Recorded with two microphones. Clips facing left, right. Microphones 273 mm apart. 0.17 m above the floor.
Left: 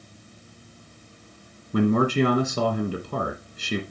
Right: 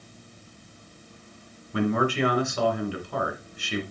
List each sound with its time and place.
1.7 s a man speaking: 45° left (ahead or behind), 1.6 m